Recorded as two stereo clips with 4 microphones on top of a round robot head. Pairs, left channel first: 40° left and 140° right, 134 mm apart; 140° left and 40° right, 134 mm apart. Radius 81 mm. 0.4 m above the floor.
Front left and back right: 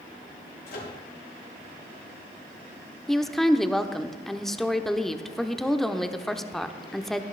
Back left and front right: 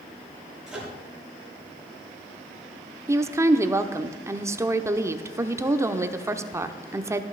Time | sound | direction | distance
0.7 | a microwave | 45° left | 6.5 m
3.1 | a woman speaking | 45° right | 0.9 m